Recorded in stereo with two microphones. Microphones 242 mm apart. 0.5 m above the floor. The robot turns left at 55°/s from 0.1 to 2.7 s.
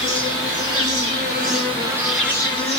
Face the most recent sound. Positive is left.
turn(degrees=150)